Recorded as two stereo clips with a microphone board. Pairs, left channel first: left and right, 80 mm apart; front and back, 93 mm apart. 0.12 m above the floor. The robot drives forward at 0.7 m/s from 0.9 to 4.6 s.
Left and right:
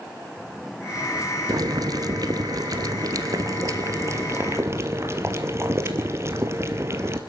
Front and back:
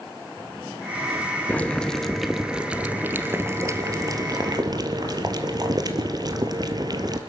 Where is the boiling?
70° right, 1.8 m; by 7.2 s 140° right, 2.5 m.